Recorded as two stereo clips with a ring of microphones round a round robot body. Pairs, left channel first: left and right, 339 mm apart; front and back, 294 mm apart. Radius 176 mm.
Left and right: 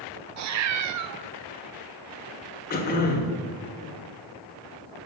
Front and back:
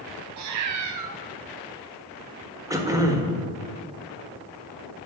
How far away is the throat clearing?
About 1.6 m.